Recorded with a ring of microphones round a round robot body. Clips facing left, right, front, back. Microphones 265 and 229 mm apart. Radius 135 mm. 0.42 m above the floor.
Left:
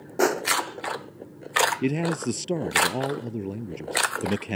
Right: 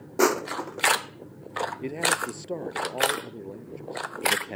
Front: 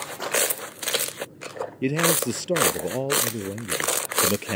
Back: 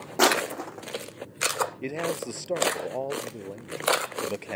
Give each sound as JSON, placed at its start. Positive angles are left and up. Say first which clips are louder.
{"t": 0.2, "sound": "crushing", "louder": "even, back 5 dB", "azimuth_deg": -170}
{"t": 1.8, "sound": "a man speaking", "louder": "left 8 dB, front 10 dB", "azimuth_deg": 45}